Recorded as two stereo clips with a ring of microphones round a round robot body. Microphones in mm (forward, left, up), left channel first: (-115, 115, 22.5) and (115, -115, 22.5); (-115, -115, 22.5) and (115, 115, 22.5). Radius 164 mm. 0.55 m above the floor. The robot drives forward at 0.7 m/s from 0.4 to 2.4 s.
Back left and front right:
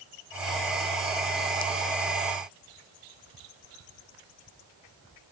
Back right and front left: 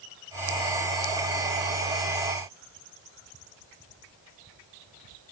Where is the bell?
I don't hear a bell.